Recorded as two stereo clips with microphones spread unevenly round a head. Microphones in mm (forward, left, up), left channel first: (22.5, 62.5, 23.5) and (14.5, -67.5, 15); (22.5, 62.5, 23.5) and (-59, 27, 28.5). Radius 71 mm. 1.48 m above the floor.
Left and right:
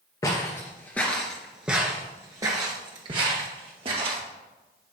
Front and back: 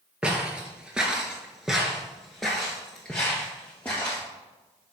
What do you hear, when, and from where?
0.2 s footsteps: 135° left, 1.8 m; by 4.2 s 55° right, 2.5 m